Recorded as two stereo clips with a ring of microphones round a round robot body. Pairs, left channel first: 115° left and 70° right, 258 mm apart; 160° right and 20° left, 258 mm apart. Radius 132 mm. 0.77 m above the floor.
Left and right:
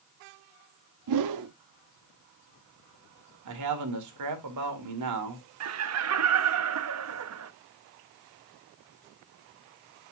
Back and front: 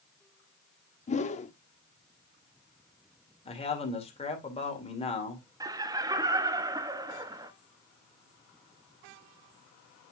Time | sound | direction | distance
1.1 | a whoosh | 90° right | 0.6 m
3.5 | a man speaking | 90° right | 2.5 m
5.6 | laughter | 55° right | 1.0 m